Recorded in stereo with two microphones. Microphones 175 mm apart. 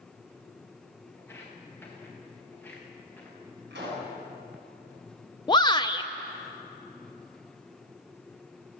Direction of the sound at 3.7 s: 80° right.